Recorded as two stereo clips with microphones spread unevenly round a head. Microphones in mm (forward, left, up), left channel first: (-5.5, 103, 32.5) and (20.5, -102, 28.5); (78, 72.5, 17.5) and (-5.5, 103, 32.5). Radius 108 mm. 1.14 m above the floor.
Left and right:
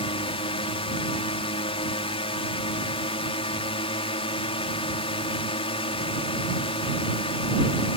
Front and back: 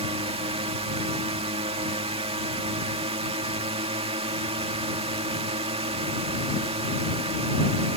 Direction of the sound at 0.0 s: 160° left.